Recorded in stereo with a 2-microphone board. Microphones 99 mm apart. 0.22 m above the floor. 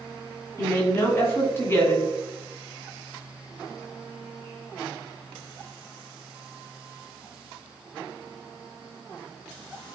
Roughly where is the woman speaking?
Left.